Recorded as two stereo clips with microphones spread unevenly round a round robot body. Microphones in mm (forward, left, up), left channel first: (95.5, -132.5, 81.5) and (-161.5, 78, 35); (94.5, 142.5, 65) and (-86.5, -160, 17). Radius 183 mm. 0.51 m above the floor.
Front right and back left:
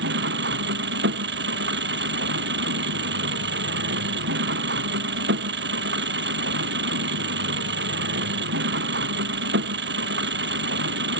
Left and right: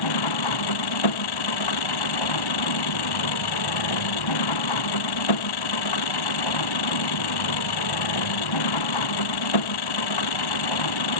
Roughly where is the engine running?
Left.